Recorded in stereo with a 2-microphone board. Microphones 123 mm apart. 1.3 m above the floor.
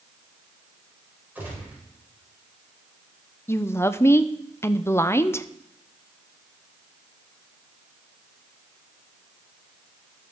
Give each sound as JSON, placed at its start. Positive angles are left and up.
{"t": 1.4, "sound": "a gunshot", "side_deg": -15, "distance_m": 4.0}
{"t": 3.5, "sound": "a woman speaking", "side_deg": 20, "distance_m": 0.5}